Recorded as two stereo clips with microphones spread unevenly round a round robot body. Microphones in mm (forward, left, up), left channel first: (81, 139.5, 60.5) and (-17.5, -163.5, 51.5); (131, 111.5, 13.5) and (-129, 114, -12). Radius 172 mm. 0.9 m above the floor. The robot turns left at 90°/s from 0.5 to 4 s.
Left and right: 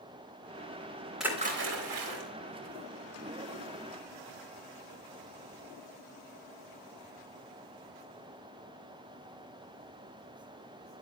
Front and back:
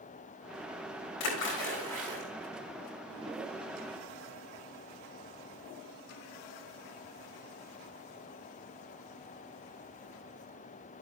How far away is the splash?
About 3.5 m.